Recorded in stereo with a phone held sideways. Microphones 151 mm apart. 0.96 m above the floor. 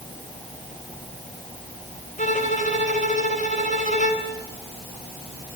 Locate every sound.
2.2 s a violin: 50° left (ahead or behind), 4 m